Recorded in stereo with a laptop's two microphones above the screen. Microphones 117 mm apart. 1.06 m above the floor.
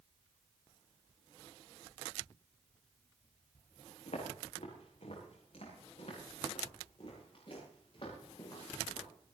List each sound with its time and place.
4.1 s footsteps: 70° left (ahead or behind), 7.5 m; by 9.1 s 45° left (ahead or behind), 11 m